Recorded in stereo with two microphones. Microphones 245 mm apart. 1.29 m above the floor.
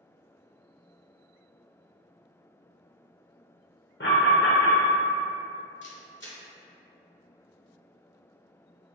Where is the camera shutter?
50° left (ahead or behind), 0.8 m.